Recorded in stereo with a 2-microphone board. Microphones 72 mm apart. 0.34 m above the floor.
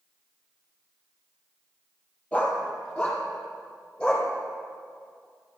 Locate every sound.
2.3 s a dog barking: 15° left (ahead or behind), 2.5 m